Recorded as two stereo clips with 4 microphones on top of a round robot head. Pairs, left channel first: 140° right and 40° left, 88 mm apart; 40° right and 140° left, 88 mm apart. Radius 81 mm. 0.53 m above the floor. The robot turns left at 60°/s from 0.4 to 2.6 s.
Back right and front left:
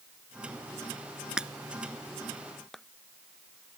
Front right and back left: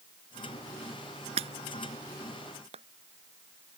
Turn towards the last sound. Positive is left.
turn(degrees=135)